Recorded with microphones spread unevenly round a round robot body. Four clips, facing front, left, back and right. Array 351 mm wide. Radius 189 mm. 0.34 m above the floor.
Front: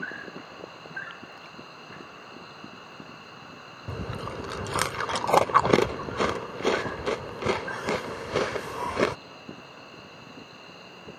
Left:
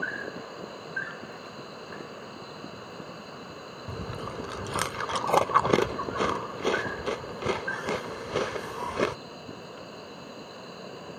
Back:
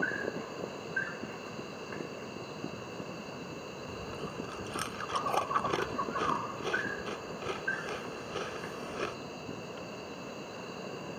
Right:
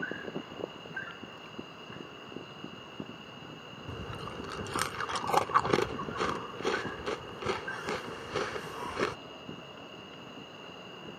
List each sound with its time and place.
0.0 s an insect: 130° left
3.9 s chewing: 30° left